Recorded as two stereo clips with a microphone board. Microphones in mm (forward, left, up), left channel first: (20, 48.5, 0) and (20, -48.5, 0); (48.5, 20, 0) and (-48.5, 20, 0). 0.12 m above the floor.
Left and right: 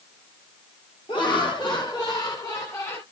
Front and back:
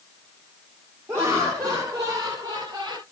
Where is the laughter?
115° left, 2.5 m; by 3.0 s 155° left, 1.8 m.